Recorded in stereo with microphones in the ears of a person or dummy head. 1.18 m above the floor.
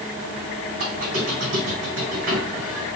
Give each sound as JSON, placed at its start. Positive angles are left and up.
{"t": 0.8, "sound": "a squeak", "side_deg": -65, "distance_m": 2.5}